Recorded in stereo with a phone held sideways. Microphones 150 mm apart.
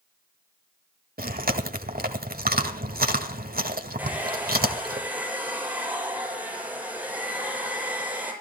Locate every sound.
1.2 s chewing: 80° right, 1.9 m
4.0 s a hair dryer: 10° right (ahead or behind), 7 m